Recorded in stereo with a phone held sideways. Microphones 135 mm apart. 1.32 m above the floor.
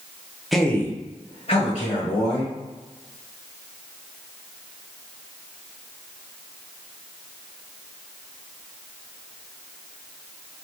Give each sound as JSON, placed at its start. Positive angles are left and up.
{"t": 0.5, "sound": "a man speaking", "side_deg": 0, "distance_m": 0.6}